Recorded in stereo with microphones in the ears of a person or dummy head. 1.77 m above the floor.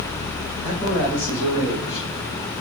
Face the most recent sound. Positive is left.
turn(degrees=40)  # may be behind; listen again after turning